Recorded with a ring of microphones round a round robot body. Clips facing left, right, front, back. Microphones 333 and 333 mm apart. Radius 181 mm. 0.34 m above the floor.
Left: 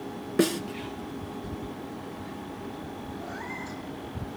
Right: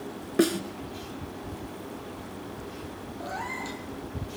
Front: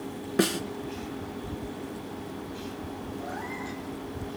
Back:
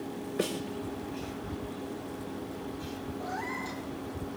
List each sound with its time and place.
0.4 s a snare drum: 10° left, 2 m
3.2 s a cat meowing: 100° right, 4.5 m